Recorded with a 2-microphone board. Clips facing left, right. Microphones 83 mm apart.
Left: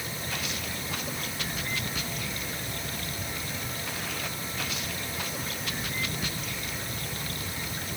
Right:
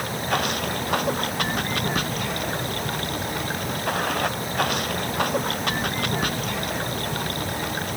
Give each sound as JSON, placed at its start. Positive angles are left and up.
{"t": 0.0, "sound": "running water", "side_deg": -65}